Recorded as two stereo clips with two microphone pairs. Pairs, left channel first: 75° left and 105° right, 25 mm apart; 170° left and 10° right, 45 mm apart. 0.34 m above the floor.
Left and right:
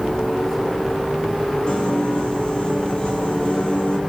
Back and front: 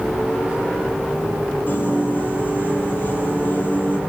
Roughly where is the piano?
Behind left.